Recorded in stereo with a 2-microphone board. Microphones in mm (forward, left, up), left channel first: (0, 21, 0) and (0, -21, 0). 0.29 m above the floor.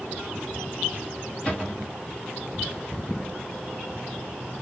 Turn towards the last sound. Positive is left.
turn(degrees=25)  # may be behind; listen again after turning